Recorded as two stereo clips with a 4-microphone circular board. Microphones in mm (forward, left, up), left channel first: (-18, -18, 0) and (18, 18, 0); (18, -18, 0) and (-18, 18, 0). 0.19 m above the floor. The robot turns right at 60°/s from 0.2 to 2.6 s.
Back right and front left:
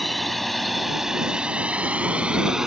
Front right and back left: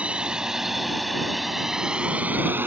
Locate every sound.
0.0 s a drone: 140° left; by 2.7 s 120° left